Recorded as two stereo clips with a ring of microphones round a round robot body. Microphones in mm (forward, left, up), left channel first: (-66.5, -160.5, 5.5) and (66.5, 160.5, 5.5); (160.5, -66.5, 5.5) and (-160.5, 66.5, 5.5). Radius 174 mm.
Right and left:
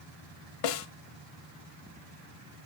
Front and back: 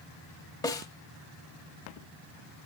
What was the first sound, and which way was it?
A snare drum, 105° right.